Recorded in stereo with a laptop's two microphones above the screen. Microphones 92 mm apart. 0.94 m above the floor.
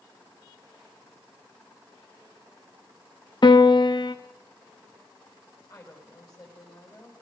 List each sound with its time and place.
3.4 s a piano: 50° left (ahead or behind), 1.2 m
5.7 s a woman speaking: 40° left (ahead or behind), 5 m